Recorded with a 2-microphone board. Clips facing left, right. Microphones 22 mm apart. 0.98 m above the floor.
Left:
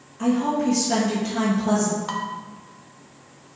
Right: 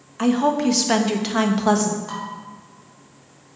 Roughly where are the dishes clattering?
Left.